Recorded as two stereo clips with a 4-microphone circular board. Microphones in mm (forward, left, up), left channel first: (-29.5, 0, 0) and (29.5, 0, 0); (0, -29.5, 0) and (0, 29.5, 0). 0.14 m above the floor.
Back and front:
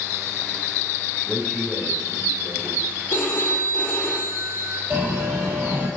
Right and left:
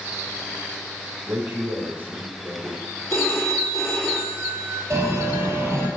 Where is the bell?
50° left, 3 m.